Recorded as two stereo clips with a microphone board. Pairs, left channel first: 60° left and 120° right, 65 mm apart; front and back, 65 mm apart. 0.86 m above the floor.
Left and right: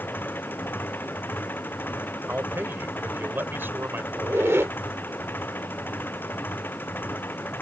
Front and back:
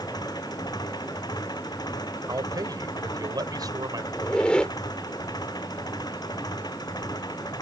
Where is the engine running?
Straight ahead.